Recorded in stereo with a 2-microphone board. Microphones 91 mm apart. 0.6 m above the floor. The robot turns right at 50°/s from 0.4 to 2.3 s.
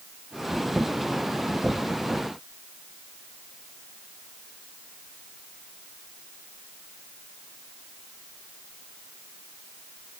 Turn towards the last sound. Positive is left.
No sound to turn to.